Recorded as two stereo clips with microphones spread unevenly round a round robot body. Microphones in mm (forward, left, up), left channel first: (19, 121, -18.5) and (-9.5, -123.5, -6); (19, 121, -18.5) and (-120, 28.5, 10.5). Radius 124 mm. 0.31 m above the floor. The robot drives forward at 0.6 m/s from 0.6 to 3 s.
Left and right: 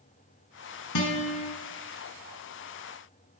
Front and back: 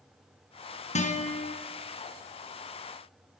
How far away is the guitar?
About 2.5 m.